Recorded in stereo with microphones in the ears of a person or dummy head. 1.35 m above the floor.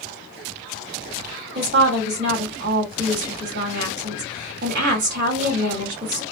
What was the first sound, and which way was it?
A woman speaking, 60° right (ahead or behind).